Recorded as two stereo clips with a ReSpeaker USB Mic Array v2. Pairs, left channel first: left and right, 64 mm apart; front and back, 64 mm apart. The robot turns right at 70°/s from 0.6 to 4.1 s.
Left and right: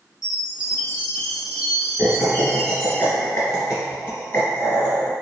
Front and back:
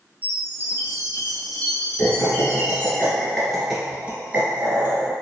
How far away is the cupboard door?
No cupboard door in this recording.